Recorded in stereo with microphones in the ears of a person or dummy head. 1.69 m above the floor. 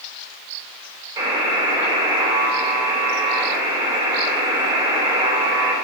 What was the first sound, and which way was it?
A buzzer, 20° right (ahead or behind).